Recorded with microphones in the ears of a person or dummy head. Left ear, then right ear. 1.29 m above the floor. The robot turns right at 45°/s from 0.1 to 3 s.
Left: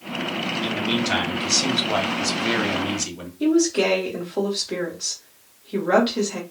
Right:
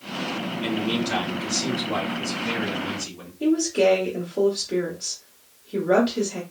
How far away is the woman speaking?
About 1.2 m.